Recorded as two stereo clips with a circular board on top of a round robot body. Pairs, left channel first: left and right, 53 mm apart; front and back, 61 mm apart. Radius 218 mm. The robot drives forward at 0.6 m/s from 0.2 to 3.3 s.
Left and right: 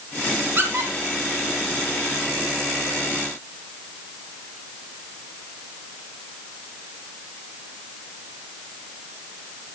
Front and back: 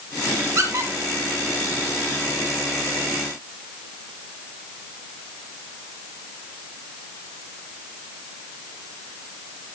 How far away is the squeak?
About 1.6 m.